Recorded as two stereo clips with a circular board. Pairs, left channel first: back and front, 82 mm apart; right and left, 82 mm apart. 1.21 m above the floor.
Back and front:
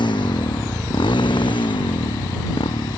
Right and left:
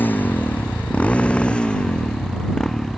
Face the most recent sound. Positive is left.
turn(degrees=-175)